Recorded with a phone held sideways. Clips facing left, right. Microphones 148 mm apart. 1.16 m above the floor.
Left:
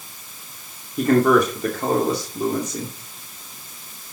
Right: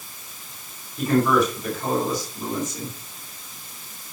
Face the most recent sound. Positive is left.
turn(degrees=70)  # may be behind; listen again after turning